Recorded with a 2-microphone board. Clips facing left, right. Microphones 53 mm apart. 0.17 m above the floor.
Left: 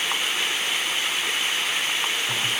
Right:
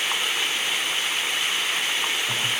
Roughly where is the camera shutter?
I don't hear a camera shutter.